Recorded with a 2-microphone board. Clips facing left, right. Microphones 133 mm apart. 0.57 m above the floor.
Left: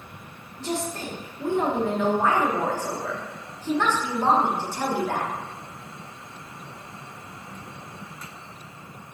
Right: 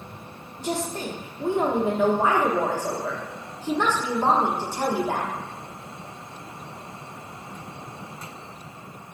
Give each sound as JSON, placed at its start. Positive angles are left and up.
{"t": 0.6, "sound": "a woman speaking", "side_deg": -15, "distance_m": 0.8}